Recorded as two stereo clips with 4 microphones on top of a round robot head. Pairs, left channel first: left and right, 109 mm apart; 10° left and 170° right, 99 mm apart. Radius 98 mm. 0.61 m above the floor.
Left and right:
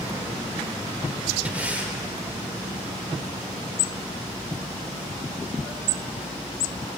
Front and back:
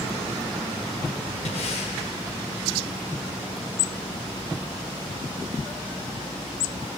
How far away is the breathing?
About 1.1 m.